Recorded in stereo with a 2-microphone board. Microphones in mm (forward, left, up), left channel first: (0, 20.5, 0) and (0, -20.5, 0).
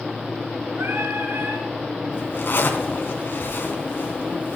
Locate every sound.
0.8 s singing: 75° right (ahead or behind), 6 m
2.1 s a zipper: 60° left (ahead or behind), 3.5 m